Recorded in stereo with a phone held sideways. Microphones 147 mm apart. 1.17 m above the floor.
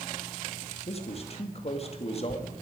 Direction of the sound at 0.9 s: 45° left (ahead or behind).